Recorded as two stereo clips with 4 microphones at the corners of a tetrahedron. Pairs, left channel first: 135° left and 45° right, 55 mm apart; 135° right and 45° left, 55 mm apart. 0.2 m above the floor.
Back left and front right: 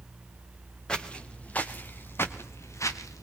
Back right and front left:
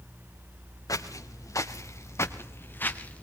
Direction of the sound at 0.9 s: 150° right.